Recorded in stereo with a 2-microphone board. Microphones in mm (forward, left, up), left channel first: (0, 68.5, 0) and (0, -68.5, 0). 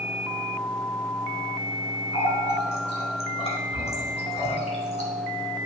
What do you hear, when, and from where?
2.1 s a running tap: 50° left (ahead or behind), 2.5 m